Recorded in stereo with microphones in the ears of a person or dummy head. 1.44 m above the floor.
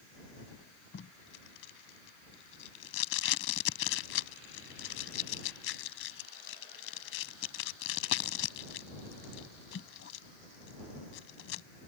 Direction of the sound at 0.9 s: 80° left.